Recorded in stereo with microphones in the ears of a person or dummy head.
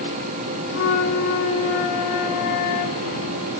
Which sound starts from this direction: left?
A flute, at 0.7 s.